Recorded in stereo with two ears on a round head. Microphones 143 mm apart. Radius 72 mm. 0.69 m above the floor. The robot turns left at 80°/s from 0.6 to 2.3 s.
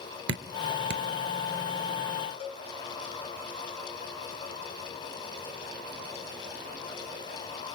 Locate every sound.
0.3 s dripping: 75° right (ahead or behind), 0.9 m; by 1.1 s 70° right (ahead or behind), 0.9 m
2.4 s a cowbell: 40° left (ahead or behind), 2 m